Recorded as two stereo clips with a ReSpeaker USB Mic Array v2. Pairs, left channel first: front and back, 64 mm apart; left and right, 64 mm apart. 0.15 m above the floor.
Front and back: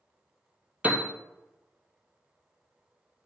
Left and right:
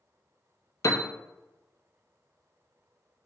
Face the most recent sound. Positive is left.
turn(degrees=115)